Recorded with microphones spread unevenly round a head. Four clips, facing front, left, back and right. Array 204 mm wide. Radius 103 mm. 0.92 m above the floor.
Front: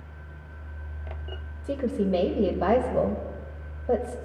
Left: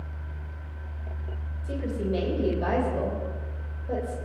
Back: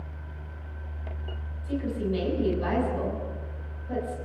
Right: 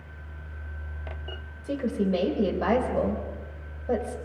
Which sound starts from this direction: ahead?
A woman speaking, at 1.6 s.